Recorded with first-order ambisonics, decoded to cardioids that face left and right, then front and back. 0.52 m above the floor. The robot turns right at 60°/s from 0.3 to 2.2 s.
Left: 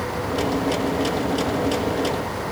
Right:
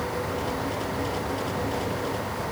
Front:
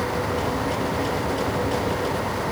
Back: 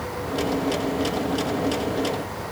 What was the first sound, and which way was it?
Only background noise.